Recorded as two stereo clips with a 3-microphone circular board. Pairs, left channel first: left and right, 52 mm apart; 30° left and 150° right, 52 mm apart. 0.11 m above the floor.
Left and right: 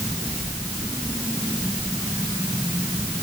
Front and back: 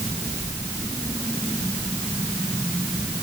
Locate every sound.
Only background noise.